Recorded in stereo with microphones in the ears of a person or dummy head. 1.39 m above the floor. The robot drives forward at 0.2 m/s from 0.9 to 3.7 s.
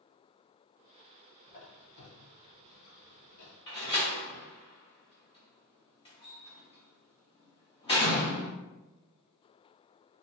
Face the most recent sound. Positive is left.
turn(degrees=25)  # may be behind; listen again after turning